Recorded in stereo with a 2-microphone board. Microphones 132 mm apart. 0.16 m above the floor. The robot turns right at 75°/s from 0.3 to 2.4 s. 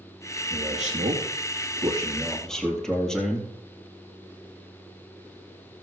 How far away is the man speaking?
About 3.5 m.